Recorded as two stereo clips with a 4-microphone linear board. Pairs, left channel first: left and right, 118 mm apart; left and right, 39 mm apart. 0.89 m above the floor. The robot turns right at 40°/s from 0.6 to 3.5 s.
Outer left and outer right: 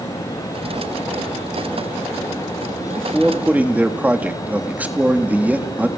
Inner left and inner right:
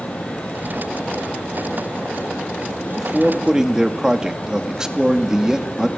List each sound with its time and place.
3.0 s a man speaking: 5° left (ahead or behind), 1.7 m; by 5.9 s 15° right (ahead or behind), 1.7 m